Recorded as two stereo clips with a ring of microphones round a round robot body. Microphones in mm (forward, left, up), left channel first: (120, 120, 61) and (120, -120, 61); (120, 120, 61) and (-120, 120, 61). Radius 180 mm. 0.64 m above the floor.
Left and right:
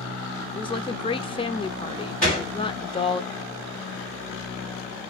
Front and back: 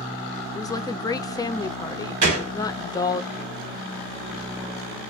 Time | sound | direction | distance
0.6 | a woman speaking | 55° left | 0.5 m
2.2 | a gunshot | 175° left | 1.0 m